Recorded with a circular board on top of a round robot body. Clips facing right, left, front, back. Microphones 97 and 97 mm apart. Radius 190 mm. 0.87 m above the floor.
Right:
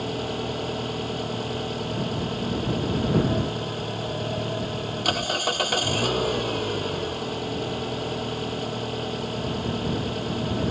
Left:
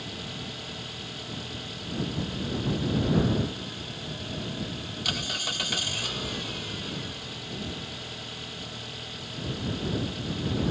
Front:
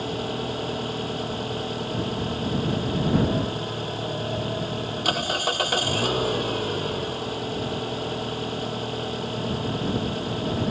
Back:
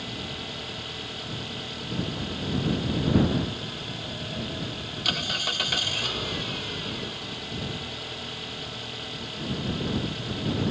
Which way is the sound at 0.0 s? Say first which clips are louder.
Right 11 dB, front 9 dB; 50° right.